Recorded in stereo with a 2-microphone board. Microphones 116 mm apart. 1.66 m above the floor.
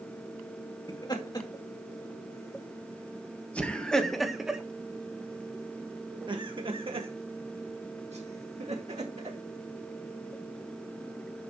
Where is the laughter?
40° left (ahead or behind), 2.5 m; by 9.4 s 75° right (ahead or behind), 2.5 m.